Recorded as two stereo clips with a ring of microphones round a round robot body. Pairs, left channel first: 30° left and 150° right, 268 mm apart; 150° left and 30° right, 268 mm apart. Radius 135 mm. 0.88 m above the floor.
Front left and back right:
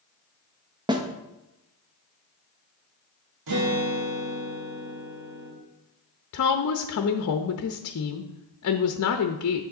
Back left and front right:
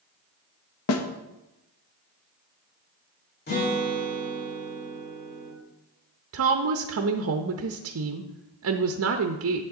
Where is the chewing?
No chewing in this recording.